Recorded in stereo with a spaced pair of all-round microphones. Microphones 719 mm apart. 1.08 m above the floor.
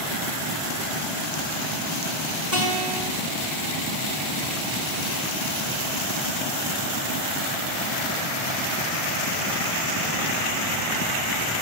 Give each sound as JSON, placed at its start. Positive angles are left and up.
{"t": 2.5, "sound": "a guitar", "side_deg": -25, "distance_m": 4.0}